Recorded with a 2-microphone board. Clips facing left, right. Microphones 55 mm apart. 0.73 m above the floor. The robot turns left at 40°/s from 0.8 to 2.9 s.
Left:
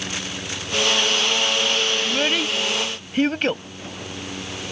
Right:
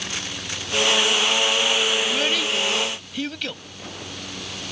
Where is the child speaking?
10° left (ahead or behind); by 3.6 s 45° left (ahead or behind).